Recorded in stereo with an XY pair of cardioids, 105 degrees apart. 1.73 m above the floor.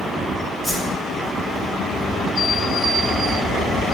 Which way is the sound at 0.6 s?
5° right.